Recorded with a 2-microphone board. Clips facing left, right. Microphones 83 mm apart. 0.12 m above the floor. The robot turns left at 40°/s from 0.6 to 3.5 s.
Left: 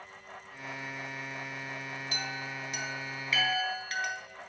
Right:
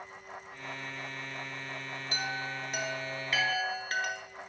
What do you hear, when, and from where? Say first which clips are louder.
2.1 s a chime: right 5 dB; 40° right (ahead or behind), 1.0 m; by 4.2 s 35° right (ahead or behind), 1.0 m